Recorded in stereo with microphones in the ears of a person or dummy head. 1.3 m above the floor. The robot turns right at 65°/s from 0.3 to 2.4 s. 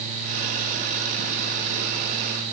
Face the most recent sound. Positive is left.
No sound to turn to.